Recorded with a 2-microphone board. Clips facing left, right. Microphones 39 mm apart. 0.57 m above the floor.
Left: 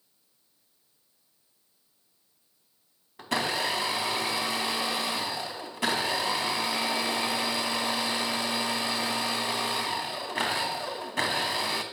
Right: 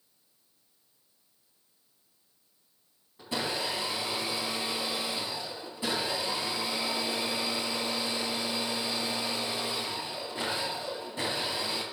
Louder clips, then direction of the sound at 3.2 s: Left 4 dB; 80° left.